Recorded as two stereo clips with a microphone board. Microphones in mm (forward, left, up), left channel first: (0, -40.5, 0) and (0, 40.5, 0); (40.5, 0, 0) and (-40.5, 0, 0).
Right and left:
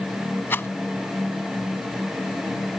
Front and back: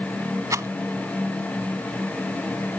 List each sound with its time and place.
0.5 s a rattle: 145° right